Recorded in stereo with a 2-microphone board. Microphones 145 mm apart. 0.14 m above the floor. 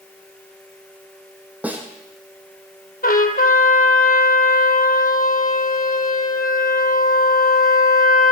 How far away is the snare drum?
About 1.4 m.